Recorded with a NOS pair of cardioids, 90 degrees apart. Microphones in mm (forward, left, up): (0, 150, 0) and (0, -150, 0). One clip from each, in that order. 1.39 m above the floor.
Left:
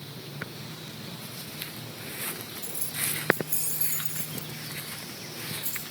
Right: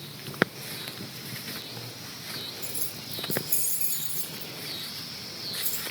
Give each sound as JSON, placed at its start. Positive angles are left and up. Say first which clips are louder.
{"t": 2.6, "sound": "keys jangling", "louder": "left 3 dB", "azimuth_deg": -30, "distance_m": 3.0}